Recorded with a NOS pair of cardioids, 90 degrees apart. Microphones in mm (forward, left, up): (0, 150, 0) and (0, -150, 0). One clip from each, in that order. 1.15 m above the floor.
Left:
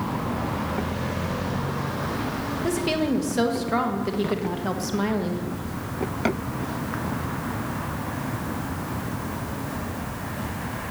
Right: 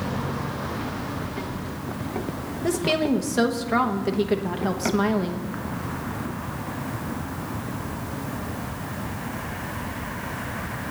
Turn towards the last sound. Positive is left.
turn(degrees=-15)